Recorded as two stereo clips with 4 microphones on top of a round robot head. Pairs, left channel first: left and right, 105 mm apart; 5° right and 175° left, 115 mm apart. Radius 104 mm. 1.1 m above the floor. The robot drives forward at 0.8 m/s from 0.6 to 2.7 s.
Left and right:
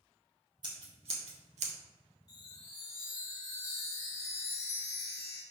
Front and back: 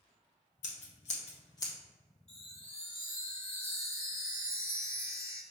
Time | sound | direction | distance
0.6 | scissors | 35° right | 1.2 m
2.3 | a chime | 70° left | 0.8 m